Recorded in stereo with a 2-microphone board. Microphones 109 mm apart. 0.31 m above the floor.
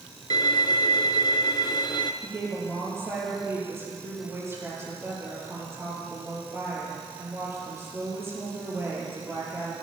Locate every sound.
0.3 s a violin: 45° left (ahead or behind), 1.2 m
2.2 s a woman speaking: 25° right (ahead or behind), 9 m